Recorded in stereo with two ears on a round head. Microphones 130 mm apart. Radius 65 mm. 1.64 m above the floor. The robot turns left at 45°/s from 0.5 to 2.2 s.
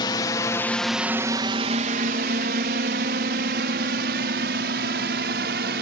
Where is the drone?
30° left (ahead or behind); by 5.8 s 80° right.